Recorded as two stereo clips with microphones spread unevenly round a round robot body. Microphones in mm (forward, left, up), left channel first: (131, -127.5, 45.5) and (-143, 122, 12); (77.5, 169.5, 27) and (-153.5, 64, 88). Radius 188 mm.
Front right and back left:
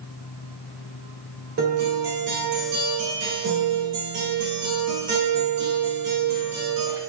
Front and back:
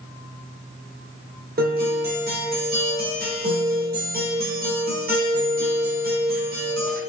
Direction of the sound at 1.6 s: 145° left.